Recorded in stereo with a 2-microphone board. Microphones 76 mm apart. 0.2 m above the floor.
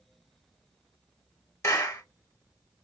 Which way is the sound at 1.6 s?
40° left (ahead or behind).